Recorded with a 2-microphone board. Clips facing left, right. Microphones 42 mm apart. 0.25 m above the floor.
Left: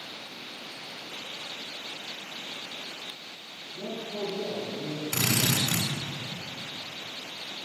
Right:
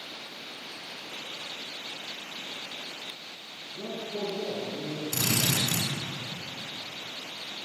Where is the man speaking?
65° right (ahead or behind), 2.5 m; by 5.0 s 70° right (ahead or behind), 3.5 m.